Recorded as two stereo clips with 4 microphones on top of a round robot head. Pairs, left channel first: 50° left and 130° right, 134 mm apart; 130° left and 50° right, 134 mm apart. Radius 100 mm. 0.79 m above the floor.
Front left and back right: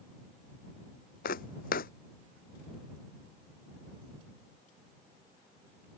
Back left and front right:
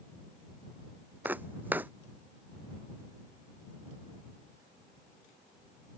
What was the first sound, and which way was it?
Footsteps, 25° left.